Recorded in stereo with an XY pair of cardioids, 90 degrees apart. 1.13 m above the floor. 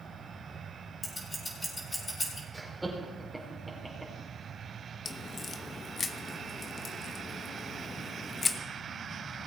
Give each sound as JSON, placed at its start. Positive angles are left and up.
{"t": 1.0, "sound": "scissors", "azimuth_deg": 25, "distance_m": 4.0}
{"t": 2.5, "sound": "laughter", "azimuth_deg": -15, "distance_m": 4.0}
{"t": 5.0, "sound": "a crack", "azimuth_deg": 45, "distance_m": 0.9}